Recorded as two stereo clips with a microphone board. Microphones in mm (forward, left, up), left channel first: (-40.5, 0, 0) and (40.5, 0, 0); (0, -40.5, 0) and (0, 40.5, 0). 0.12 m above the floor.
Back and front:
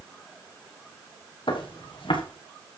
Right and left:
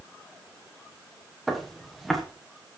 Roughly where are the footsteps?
Behind.